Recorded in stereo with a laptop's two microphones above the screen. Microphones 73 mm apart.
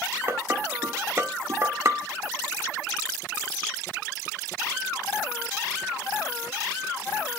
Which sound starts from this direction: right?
Dishes clattering, at 0.3 s.